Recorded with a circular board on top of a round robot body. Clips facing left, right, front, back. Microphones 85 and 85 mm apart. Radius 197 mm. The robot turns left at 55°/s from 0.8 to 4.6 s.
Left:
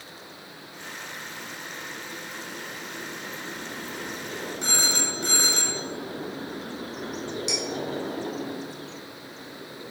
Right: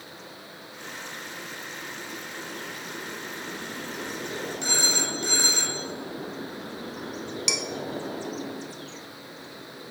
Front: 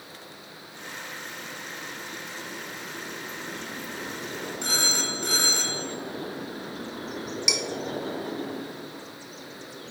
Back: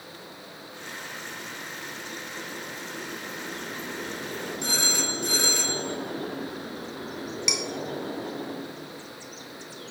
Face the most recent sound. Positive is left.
turn(degrees=-85)